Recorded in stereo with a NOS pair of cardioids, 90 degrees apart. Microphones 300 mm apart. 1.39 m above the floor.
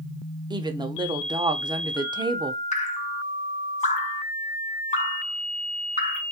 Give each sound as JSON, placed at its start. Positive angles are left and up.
{"t": 0.5, "sound": "a woman speaking", "azimuth_deg": -15, "distance_m": 0.6}
{"t": 2.7, "sound": "dripping", "azimuth_deg": 25, "distance_m": 0.7}